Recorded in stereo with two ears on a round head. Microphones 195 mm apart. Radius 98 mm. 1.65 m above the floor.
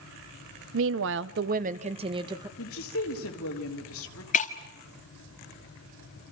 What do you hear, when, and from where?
0.7 s a woman speaking: 65° right (ahead or behind), 0.9 m; by 2.5 s 20° right (ahead or behind), 1.6 m
2.6 s a woman speaking: 70° left (ahead or behind), 3.5 m
4.3 s breaking glass: 35° left (ahead or behind), 1.7 m